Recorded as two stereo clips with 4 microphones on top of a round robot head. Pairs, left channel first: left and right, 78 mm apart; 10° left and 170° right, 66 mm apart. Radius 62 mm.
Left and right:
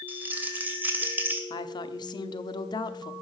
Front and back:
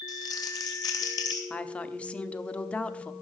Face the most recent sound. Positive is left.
turn(degrees=80)